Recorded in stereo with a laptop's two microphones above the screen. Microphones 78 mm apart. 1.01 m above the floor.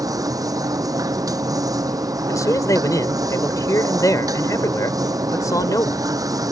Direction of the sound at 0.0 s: 50° right (ahead or behind).